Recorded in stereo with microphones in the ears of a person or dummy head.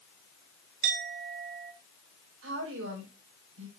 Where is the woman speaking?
75° right (ahead or behind), 4.5 m.